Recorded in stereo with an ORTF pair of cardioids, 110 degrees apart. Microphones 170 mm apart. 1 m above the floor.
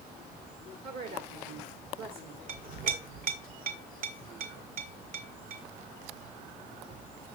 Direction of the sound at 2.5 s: 60° right.